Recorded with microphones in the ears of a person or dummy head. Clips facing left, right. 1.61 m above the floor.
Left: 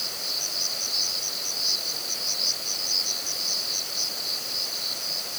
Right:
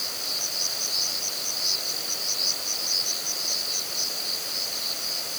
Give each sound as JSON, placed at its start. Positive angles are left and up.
{"t": 0.0, "sound": "an insect", "side_deg": -5}